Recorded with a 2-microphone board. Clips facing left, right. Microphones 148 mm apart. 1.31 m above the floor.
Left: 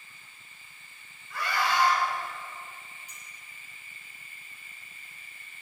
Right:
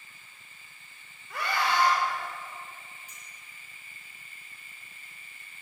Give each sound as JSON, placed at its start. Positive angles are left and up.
{"t": 1.3, "sound": "a scream", "side_deg": -70, "distance_m": 5.5}
{"t": 3.1, "sound": "a clink", "side_deg": -50, "distance_m": 4.0}